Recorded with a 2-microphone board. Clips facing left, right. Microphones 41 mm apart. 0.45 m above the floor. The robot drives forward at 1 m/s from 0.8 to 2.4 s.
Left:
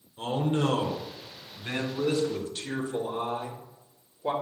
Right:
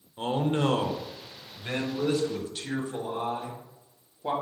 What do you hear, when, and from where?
0.2 s a man speaking: 20° right (ahead or behind), 1.0 m; by 4.3 s 10° right (ahead or behind), 2.5 m